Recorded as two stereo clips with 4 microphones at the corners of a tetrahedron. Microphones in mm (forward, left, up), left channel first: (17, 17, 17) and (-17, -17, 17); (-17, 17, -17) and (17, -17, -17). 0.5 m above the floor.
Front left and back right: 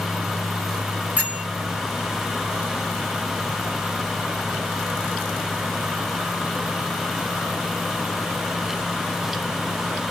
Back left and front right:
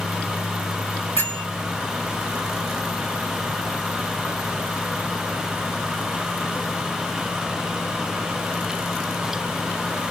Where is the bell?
170° left, 1.7 m.